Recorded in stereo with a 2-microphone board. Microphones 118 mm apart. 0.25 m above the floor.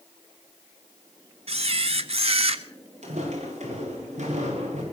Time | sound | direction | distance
1.5 | a camera shutter | 55° right (ahead or behind) | 0.7 m
3.0 | footsteps | 80° right | 7 m